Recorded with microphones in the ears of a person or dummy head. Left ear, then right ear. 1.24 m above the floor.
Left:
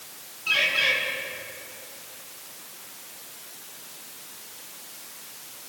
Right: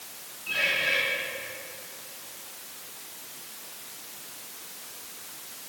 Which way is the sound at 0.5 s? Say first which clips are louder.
Left 4 dB; 65° left (ahead or behind).